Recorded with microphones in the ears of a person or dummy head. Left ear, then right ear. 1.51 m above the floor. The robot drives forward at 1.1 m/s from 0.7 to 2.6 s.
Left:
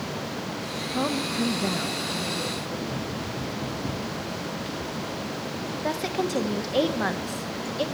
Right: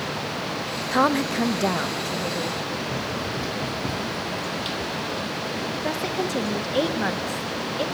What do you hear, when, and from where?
0.9 s a woman speaking: 70° right (ahead or behind), 1.0 m; by 2.8 s 25° right (ahead or behind), 2.5 m
2.9 s running footsteps: 35° right (ahead or behind), 3 m; by 5.4 s 20° right (ahead or behind), 1.7 m
5.8 s a woman speaking: centre (ahead or behind), 1.7 m